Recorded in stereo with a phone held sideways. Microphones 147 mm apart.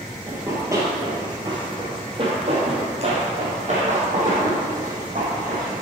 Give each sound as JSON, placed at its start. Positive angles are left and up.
{"t": 0.3, "sound": "running footsteps", "side_deg": -15, "distance_m": 1.8}